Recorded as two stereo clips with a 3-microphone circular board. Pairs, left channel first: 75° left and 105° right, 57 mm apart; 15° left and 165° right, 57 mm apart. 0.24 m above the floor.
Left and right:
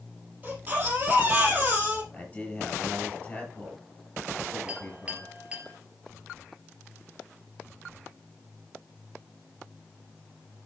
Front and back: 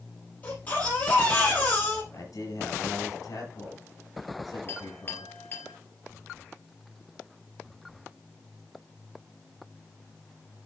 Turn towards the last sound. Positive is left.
turn(degrees=-35)